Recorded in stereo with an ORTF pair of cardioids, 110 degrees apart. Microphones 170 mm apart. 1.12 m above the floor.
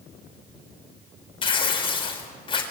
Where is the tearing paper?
30° left, 4.5 m.